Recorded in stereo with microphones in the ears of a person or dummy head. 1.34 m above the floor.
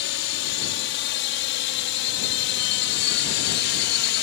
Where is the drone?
60° left (ahead or behind).